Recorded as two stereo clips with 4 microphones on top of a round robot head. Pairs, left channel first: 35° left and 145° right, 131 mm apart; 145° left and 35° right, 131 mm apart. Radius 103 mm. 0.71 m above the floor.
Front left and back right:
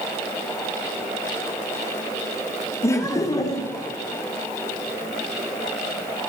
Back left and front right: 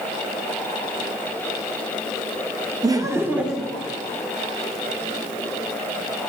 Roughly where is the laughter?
Ahead.